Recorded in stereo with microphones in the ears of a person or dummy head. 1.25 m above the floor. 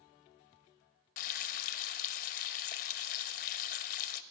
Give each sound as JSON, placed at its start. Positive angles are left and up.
{"t": 1.2, "sound": "frying", "side_deg": 45, "distance_m": 1.3}